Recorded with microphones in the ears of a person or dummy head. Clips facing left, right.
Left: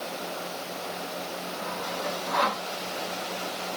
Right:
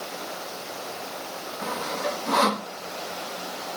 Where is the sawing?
65° right (ahead or behind).